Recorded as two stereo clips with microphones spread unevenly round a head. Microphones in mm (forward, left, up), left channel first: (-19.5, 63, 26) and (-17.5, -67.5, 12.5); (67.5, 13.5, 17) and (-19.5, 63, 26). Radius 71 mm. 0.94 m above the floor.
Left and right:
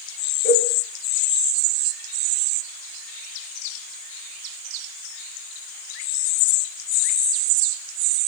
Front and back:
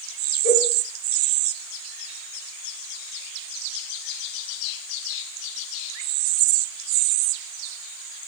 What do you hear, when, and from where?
0.4 s a cowbell: 105° right, 1.6 m